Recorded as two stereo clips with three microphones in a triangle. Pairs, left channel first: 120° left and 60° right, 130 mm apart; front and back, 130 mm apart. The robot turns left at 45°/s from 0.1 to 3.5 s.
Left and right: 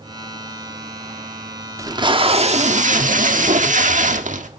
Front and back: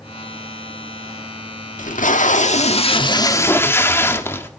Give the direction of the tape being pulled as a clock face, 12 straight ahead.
12 o'clock.